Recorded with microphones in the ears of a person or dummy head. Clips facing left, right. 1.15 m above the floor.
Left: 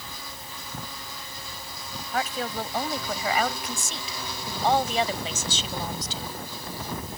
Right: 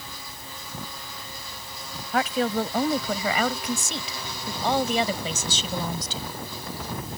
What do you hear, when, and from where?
2.1 s a woman speaking: 60° right (ahead or behind); by 6.3 s 70° right (ahead or behind)